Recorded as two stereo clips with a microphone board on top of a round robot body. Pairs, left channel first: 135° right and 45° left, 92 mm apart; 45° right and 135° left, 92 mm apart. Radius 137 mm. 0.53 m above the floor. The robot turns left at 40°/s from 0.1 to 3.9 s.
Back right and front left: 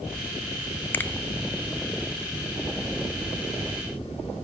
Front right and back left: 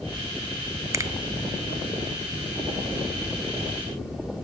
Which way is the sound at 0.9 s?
170° left.